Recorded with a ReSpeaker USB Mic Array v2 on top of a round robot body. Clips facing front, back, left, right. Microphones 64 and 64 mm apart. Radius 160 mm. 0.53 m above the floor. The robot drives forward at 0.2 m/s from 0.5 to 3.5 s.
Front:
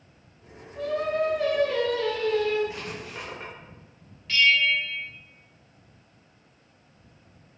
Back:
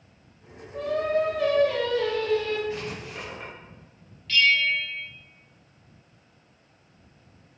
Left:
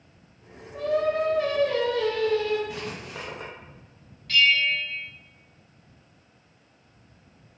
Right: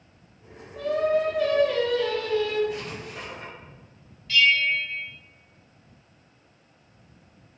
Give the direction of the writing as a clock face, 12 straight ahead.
10 o'clock.